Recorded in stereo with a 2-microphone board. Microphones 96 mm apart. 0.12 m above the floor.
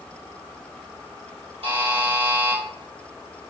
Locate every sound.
1.6 s a buzzer: 65° right (ahead or behind), 1.8 m